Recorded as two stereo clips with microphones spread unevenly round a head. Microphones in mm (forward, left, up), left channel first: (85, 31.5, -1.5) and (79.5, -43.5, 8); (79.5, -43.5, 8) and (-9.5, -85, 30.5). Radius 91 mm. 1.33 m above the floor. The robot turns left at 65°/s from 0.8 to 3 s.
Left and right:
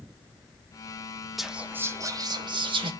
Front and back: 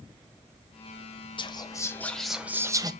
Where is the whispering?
5° right, 1.9 m; by 2.9 s 105° right, 1.9 m.